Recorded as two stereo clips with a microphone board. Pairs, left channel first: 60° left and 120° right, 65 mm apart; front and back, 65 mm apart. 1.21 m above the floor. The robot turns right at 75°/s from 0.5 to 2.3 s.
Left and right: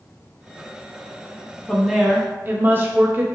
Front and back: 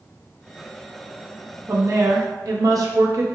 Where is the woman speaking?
135° left, 0.7 m; by 3.2 s 175° right, 0.7 m.